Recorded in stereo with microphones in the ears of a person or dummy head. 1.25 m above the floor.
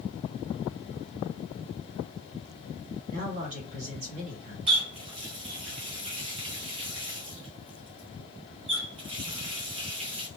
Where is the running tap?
30° right (ahead or behind), 0.6 m.